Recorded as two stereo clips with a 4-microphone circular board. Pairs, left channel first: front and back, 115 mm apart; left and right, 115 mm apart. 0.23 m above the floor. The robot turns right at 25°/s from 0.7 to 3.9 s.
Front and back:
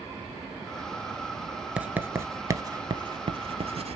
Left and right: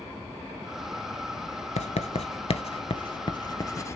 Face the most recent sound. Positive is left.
turn(degrees=155)